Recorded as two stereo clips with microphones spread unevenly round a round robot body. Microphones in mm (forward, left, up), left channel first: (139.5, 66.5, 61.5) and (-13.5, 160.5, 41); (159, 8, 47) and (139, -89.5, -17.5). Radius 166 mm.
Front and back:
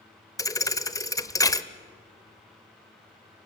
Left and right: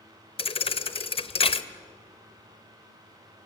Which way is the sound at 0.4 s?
40° left.